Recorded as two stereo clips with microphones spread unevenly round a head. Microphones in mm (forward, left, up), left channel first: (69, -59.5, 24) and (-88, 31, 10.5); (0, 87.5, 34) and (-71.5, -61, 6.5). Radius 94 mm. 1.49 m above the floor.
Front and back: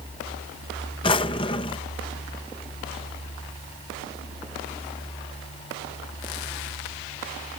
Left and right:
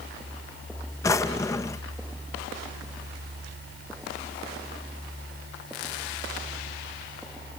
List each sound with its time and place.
1.0 s a drawer: 15° left